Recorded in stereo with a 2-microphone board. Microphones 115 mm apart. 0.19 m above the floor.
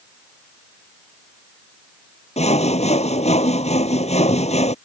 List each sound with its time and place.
2.4 s sawing: 75° left (ahead or behind)